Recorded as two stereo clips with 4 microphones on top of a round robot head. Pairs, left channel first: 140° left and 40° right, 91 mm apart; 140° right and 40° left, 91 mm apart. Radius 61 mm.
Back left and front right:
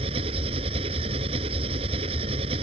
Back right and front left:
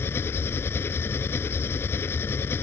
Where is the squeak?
I don't hear a squeak.